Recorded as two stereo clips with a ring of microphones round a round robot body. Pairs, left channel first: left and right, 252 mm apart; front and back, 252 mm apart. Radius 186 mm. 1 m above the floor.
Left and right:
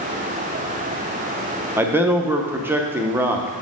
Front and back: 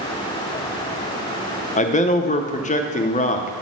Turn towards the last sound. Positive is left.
turn(degrees=-15)